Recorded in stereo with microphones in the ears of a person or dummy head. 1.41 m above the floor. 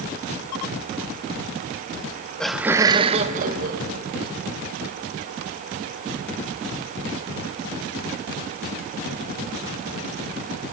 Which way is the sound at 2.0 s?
25° left (ahead or behind).